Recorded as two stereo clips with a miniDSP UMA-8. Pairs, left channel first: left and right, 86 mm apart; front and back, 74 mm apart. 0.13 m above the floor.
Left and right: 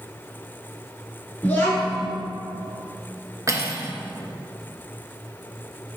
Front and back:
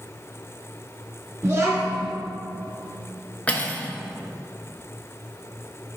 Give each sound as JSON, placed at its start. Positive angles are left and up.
{"t": 1.4, "sound": "a child speaking", "azimuth_deg": 145, "distance_m": 1.4}
{"t": 3.5, "sound": "cutlery clinking", "azimuth_deg": -65, "distance_m": 0.8}